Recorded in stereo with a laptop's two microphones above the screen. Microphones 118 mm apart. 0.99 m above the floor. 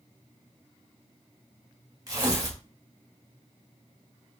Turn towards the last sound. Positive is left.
turn(degrees=-30)  # may be behind; listen again after turning